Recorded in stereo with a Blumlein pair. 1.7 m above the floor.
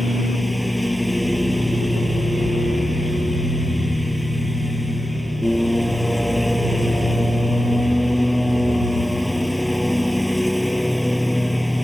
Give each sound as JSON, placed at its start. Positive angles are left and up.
{"t": 0.0, "sound": "a lawn mower", "azimuth_deg": 0}